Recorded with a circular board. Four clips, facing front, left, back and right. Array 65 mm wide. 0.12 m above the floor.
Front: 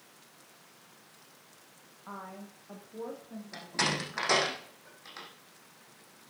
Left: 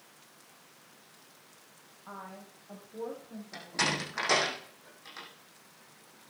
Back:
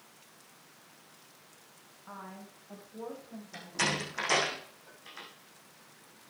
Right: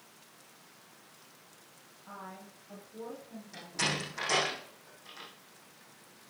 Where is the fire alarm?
No fire alarm in this recording.